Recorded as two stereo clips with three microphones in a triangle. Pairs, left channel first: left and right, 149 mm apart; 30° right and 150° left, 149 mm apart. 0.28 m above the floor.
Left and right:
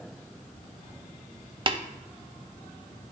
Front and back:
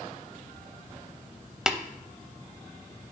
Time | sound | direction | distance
1.7 | tapping | 125° right | 0.5 m